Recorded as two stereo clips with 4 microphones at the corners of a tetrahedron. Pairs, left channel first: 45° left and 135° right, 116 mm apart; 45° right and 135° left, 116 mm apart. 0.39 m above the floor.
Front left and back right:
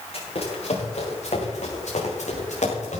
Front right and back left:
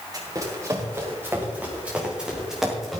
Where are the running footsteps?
75° left, 6.5 m; by 3.0 s 45° left, 7.5 m.